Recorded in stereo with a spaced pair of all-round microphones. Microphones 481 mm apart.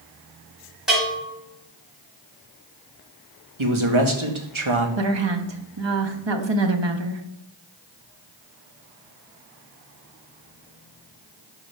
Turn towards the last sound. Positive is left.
turn(degrees=-60)  # may be behind; listen again after turning